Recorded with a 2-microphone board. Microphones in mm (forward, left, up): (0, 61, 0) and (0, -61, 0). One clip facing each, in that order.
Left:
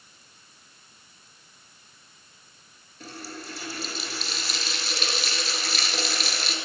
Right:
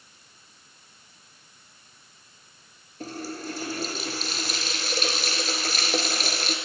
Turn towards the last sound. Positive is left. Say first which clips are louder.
# right 6 dB
turn(degrees=-45)  # may be behind; listen again after turning